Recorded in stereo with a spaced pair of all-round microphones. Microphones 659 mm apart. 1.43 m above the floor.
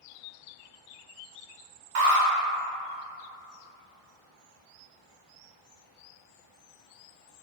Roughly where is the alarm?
Right.